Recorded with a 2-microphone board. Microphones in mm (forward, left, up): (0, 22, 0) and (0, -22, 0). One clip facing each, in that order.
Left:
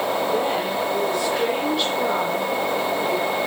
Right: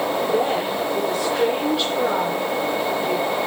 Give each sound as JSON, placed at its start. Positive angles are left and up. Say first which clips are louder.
{"t": 0.3, "sound": "a woman speaking", "louder": "right 1 dB", "side_deg": 0, "distance_m": 8.5}